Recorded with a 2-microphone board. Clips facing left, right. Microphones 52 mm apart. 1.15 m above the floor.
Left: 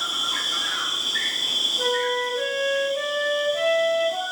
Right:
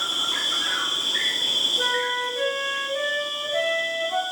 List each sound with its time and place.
0.0 s an insect: 25° right (ahead or behind), 0.7 m
1.8 s a flute: 45° right (ahead or behind), 0.8 m